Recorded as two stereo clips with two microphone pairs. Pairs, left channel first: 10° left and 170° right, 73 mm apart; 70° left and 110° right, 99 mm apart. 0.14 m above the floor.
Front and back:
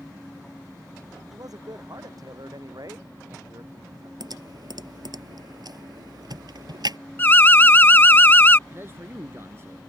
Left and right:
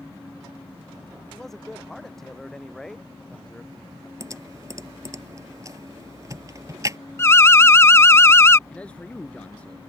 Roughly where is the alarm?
Ahead left.